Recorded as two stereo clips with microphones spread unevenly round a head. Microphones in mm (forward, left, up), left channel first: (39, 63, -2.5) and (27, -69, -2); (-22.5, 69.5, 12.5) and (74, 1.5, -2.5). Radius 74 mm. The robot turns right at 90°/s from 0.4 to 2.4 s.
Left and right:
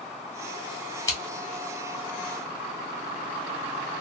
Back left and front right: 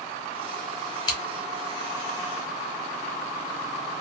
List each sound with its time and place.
1.1 s scissors: 140° left, 1.0 m; by 1.2 s 150° left, 1.0 m